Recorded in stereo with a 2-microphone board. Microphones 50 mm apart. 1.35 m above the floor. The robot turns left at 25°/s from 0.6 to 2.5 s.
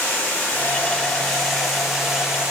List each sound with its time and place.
0.0 s running water: 30° left, 3 m; by 2.5 s 15° right, 3 m